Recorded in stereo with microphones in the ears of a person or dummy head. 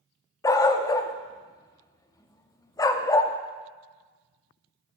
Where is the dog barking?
20° left (ahead or behind), 0.7 m.